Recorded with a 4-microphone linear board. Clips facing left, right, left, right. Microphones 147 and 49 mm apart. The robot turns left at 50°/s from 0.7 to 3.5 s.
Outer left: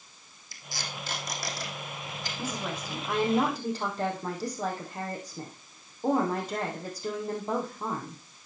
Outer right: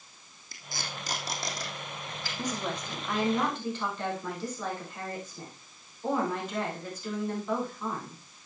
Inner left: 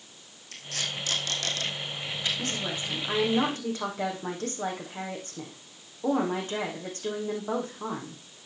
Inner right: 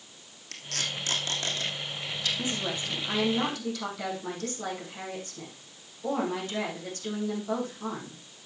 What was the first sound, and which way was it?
Tape being pulled, 55° right (ahead or behind).